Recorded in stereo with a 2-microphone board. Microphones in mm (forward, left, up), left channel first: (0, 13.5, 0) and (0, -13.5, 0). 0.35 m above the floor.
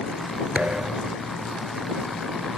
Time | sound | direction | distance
0.6 | a thud | 55° right (ahead or behind) | ?